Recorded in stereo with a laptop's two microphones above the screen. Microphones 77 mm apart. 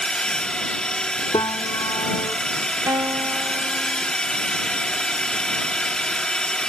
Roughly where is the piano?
Left.